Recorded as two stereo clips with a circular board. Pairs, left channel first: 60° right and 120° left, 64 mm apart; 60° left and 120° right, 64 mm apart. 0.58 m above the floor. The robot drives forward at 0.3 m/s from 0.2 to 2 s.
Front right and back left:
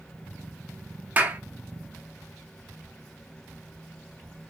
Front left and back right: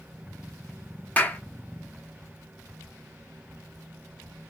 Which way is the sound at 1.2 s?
95° left.